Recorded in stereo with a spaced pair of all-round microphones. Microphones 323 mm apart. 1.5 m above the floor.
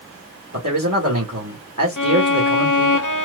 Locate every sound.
0.5 s a man speaking: 60° right (ahead or behind), 2 m
2.0 s a violin: 70° left (ahead or behind), 0.8 m